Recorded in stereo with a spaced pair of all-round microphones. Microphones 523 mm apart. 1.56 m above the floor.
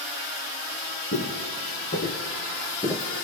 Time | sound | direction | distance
1.1 | footsteps | 30° left (ahead or behind) | 2 m